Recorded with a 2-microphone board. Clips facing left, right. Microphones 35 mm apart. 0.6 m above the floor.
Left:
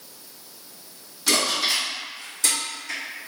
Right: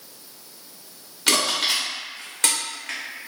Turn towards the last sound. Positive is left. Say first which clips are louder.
# right 1 dB
turn(degrees=-55)  # may be behind; listen again after turning